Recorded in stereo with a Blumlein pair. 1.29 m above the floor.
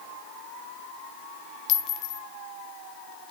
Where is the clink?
35° left, 1.0 m.